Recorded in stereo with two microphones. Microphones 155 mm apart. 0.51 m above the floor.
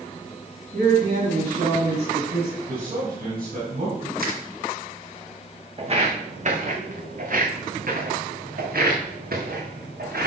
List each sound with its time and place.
0.7 s a man speaking: 50° right (ahead or behind), 3.5 m; by 2.6 s 55° right (ahead or behind), 5 m
2.7 s a man speaking: 70° right (ahead or behind), 5 m
4.2 s crushing: 80° right, 1.8 m
5.8 s footsteps: 40° right (ahead or behind), 1.6 m; by 10.3 s 80° right, 3.5 m